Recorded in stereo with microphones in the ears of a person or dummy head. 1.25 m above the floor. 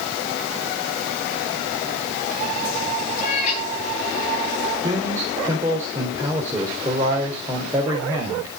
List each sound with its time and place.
3.2 s a cat meowing: 40° left (ahead or behind), 9 m
4.8 s a man speaking: 15° right (ahead or behind), 4 m